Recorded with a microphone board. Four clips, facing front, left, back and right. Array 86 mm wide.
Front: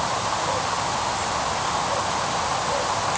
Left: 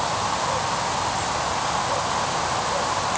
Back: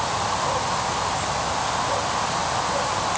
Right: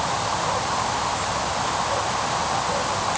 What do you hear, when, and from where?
Only background noise.